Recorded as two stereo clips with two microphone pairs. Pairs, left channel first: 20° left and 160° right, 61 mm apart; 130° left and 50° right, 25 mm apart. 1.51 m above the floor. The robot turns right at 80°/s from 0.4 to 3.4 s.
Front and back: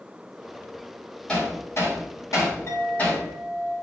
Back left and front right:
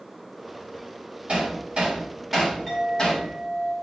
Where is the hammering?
55° right, 4 m; by 3.2 s 100° left, 4 m.